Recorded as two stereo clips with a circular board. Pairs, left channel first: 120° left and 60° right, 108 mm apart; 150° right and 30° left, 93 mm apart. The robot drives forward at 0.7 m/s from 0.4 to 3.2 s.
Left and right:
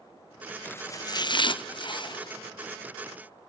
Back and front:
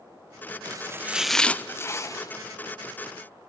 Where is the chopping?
50° left, 0.5 m; by 2.3 s 160° left, 1.0 m.